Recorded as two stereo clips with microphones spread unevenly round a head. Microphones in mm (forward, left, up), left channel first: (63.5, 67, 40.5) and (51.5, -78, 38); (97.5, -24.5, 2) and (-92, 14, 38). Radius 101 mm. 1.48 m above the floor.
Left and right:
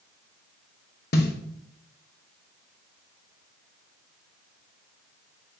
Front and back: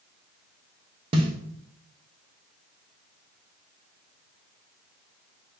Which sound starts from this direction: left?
A snare drum, at 1.1 s.